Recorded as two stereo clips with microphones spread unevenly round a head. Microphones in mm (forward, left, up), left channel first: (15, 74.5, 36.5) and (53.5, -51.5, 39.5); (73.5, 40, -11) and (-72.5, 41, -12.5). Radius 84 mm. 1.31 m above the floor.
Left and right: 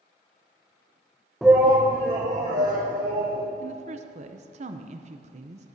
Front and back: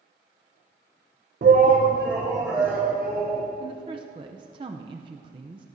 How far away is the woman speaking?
About 0.6 m.